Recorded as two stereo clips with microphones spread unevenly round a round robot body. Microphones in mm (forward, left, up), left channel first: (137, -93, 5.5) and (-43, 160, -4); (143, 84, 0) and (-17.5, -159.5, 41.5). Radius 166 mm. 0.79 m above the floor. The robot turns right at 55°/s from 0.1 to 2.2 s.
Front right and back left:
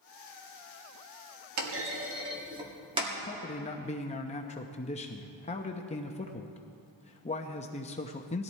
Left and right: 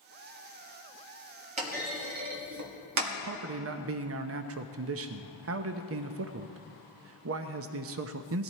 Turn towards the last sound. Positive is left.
turn(degrees=-115)